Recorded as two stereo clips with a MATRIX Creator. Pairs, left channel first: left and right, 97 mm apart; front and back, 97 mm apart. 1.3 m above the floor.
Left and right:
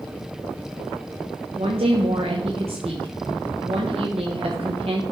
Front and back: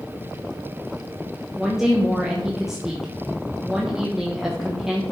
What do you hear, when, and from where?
1.6 s a woman speaking: 95° right, 1.0 m